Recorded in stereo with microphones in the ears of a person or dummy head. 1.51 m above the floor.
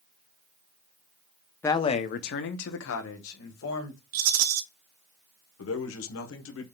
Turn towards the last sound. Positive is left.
turn(degrees=85)